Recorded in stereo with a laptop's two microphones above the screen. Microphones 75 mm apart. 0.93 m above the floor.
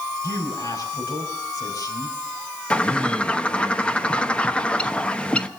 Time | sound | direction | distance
0.2 | a man speaking | 50° left (ahead or behind) | 5.5 m
2.7 | a bird | 15° left (ahead or behind) | 0.9 m